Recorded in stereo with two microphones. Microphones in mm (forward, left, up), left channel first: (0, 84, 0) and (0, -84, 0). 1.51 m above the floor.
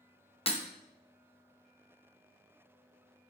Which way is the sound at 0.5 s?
35° left (ahead or behind).